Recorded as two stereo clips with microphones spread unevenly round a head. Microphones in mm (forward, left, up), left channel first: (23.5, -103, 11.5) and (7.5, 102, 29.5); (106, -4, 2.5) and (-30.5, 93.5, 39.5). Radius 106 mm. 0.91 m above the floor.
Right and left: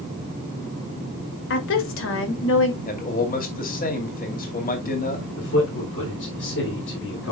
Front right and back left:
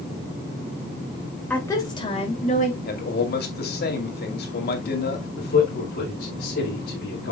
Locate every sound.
1.5 s a woman speaking: 115° right, 2 m; by 2.8 s 75° right, 2.5 m
2.9 s a man speaking: 40° right, 2.5 m
5.4 s a man speaking: 65° right, 3.5 m